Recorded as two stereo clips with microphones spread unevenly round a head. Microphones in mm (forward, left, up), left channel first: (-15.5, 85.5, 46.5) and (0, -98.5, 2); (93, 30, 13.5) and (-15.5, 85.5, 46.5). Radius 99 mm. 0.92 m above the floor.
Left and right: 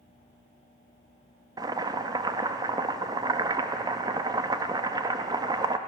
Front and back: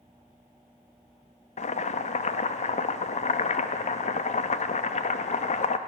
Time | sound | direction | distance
1.6 | boiling | 20° right | 0.9 m